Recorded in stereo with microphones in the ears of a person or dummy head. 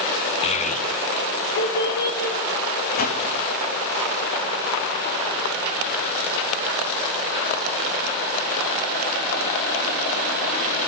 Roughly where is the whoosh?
Left.